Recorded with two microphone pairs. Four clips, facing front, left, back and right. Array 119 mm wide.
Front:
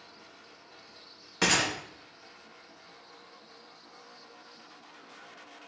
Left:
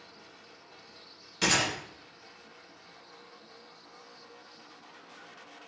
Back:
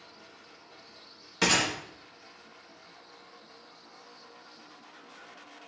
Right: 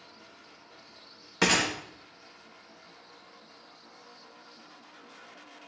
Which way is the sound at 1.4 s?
70° right.